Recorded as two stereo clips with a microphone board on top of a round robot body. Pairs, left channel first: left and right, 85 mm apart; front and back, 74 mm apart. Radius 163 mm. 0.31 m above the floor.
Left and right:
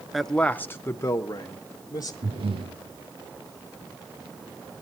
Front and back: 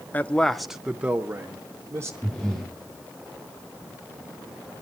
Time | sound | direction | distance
0.1 | a man speaking | 5° right | 0.8 m
2.2 | breathing | 85° right | 6.5 m